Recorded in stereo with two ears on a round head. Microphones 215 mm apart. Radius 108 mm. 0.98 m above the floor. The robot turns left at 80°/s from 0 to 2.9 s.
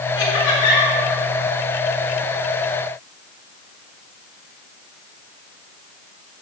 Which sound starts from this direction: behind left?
Laughter, at 0.2 s.